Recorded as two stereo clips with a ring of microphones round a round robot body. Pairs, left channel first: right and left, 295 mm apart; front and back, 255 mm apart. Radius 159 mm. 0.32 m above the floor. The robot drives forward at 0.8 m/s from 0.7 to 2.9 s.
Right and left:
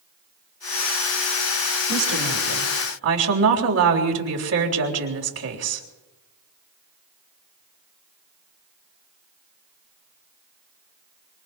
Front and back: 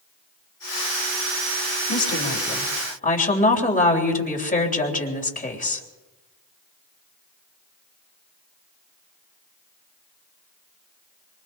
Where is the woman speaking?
45° left, 4 m; by 5.9 s 55° left, 3.5 m.